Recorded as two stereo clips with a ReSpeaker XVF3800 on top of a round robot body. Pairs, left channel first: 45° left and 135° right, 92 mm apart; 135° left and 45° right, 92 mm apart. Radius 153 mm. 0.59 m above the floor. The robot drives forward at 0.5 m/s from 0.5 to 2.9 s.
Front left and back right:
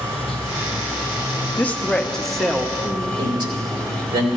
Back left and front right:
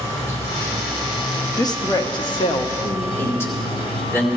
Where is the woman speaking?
110° left, 1.1 m; by 3.1 s 140° left, 1.4 m.